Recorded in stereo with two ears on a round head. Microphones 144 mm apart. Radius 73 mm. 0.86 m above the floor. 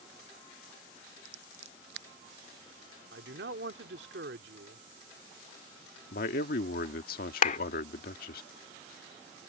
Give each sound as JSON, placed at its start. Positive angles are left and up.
{"t": 1.2, "sound": "scissors", "side_deg": -85}
{"t": 3.1, "sound": "a man speaking", "side_deg": -75}
{"t": 6.1, "sound": "a man speaking", "side_deg": 65}
{"t": 7.4, "sound": "a clap", "side_deg": 55}